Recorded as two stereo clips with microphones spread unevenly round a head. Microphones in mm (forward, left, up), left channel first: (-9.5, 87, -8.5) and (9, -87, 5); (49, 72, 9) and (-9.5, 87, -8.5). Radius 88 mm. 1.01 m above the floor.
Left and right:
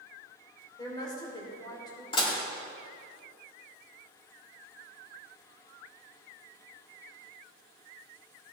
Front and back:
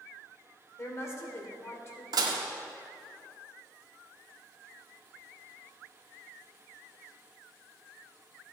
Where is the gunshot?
No gunshot in this recording.